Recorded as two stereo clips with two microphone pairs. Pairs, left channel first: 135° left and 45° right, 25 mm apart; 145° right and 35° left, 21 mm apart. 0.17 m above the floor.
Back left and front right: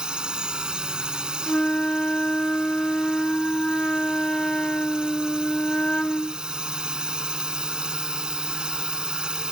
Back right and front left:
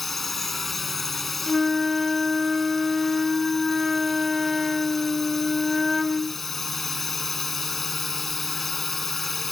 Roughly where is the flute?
Behind left.